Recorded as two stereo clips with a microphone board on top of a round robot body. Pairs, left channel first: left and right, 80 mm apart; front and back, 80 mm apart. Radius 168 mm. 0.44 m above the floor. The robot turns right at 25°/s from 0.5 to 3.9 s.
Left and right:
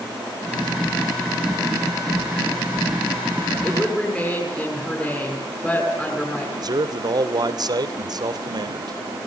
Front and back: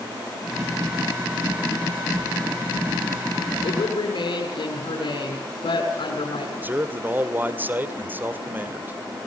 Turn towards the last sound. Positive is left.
turn(degrees=-115)